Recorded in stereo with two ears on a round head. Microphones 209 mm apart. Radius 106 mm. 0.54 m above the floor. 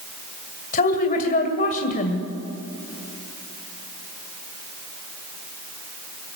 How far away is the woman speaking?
About 2.5 m.